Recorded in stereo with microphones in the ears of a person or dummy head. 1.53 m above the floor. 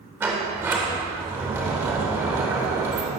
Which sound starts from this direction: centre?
A sliding door, at 0.2 s.